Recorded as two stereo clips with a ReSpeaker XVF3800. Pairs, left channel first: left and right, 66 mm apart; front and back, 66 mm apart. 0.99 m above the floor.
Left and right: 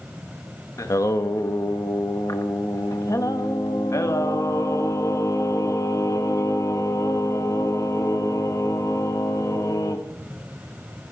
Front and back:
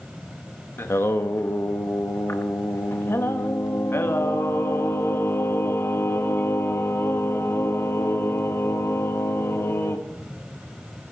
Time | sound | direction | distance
0.8 | singing | 50° left | 0.6 m